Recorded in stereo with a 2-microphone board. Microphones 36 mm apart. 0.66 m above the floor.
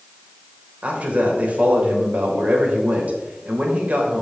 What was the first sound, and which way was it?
A man speaking, 45° right (ahead or behind).